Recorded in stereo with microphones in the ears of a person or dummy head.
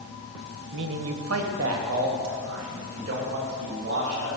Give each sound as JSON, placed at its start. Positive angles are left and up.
{"t": 0.7, "sound": "a man speaking", "side_deg": -70, "distance_m": 0.7}